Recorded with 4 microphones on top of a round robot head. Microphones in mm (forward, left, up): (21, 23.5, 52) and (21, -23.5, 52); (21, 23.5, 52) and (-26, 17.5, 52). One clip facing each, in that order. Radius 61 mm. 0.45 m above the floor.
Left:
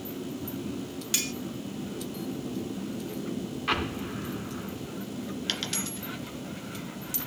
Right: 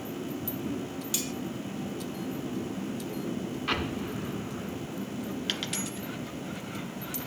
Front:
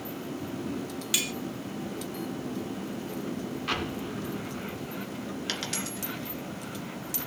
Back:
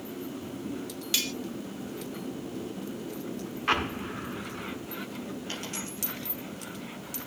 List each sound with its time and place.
1.1 s cutlery clinking: 85° left, 0.7 m
3.7 s an explosion: 160° left, 1.8 m
5.5 s a dropped coin: 10° right, 2.0 m